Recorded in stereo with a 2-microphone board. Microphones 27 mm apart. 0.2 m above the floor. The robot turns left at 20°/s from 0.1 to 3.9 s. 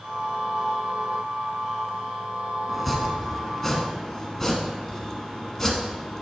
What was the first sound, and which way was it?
Chopping, 5° left (ahead or behind).